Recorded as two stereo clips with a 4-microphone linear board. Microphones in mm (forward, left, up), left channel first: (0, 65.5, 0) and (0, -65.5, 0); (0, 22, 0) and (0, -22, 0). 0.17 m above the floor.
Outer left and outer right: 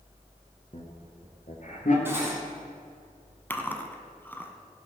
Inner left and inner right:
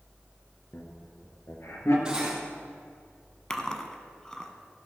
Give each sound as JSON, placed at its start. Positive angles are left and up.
{"t": 0.7, "sound": "laughter", "side_deg": 50, "distance_m": 2.5}
{"t": 2.0, "sound": "cutlery clinking", "side_deg": -15, "distance_m": 3.0}
{"t": 3.5, "sound": "chewing", "side_deg": 15, "distance_m": 1.0}